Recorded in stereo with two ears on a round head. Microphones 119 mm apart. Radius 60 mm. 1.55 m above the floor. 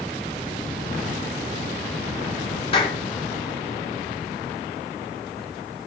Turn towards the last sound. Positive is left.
turn(degrees=40)  # may be behind; listen again after turning